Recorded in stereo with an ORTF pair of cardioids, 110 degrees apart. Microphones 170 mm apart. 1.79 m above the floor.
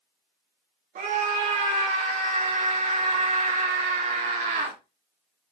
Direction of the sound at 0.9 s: 55° right.